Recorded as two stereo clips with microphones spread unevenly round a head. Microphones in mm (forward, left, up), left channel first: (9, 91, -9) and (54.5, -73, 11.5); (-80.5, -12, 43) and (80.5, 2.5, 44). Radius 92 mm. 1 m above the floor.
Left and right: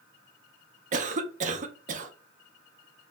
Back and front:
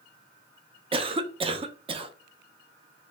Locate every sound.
0.9 s a cough: 40° right, 0.5 m